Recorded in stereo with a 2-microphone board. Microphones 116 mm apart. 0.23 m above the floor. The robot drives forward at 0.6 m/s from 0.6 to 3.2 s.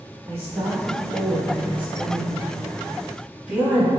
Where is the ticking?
No ticking in this recording.